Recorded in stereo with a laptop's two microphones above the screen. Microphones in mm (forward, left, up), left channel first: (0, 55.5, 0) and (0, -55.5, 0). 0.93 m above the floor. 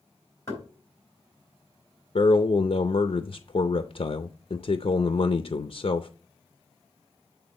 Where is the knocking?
25° left (ahead or behind), 4 m.